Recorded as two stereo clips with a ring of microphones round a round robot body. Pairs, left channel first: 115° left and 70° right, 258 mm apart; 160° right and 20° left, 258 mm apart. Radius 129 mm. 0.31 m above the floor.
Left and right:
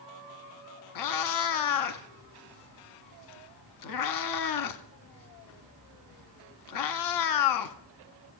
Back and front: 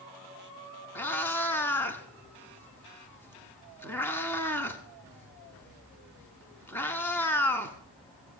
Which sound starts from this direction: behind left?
A cat meowing, at 0.9 s.